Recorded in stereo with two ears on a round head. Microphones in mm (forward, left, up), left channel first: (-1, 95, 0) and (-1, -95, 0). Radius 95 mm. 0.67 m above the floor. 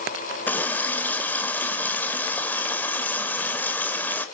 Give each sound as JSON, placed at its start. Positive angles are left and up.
{"t": 0.5, "sound": "a running tap", "side_deg": 10, "distance_m": 1.7}